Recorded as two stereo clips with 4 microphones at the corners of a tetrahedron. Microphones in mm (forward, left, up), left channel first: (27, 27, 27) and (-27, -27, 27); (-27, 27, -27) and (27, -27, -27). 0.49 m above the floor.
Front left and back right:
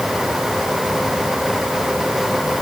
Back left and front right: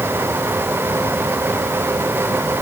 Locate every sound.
Only background noise.